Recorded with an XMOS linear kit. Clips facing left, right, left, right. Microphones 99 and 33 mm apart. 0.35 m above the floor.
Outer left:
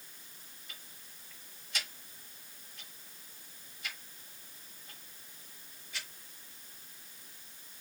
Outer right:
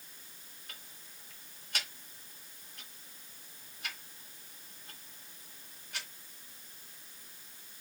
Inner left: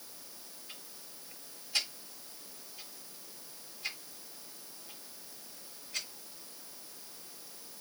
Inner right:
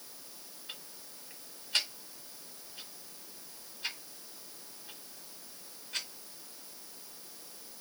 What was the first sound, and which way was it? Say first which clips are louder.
Ticking: outer right 2 dB, inner right 5 dB; 55° right (ahead or behind).